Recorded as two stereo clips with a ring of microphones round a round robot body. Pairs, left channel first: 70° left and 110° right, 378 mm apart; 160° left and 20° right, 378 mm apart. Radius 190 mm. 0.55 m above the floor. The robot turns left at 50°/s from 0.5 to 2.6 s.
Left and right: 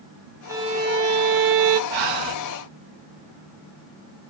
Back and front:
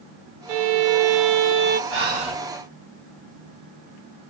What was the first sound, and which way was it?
A violin, 30° right.